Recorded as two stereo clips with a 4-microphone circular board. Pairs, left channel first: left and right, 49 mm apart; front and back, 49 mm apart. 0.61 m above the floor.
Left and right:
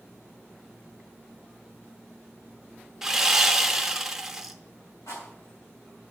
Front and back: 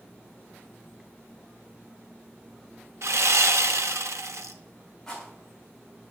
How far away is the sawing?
About 0.7 m.